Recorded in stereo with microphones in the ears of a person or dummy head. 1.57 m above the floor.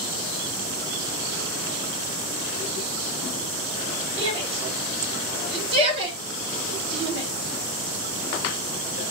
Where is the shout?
35° right (ahead or behind), 4 m.